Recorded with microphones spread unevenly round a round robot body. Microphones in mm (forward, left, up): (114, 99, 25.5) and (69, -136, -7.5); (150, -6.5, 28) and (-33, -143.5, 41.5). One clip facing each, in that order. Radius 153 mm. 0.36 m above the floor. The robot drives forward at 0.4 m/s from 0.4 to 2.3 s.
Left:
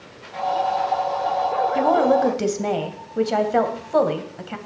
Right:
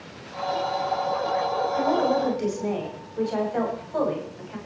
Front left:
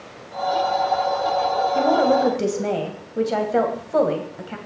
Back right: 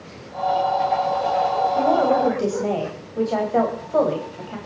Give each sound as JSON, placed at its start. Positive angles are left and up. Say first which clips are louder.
{"t": 1.8, "sound": "a woman speaking", "louder": "left 5 dB, front left 1 dB", "azimuth_deg": 100, "distance_m": 2.5}